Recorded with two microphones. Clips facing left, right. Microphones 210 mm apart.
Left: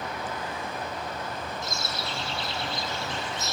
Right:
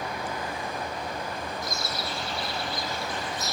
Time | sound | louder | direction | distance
1.6 | a bird | right 1 dB | 25° left (ahead or behind) | 0.8 m